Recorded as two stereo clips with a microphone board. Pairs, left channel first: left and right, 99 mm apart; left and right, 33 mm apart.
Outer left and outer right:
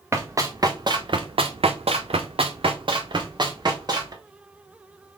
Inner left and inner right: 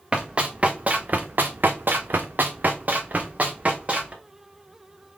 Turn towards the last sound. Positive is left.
turn(degrees=-40)  # may be behind; listen again after turning